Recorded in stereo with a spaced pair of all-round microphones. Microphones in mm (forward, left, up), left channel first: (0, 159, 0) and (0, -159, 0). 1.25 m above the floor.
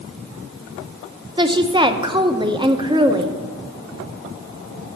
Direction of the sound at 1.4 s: 15° right (ahead or behind).